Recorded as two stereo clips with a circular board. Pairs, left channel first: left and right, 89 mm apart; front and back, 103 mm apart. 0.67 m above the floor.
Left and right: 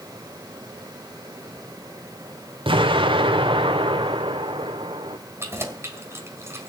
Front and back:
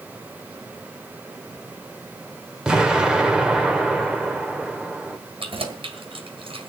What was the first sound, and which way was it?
An explosion, 100° right.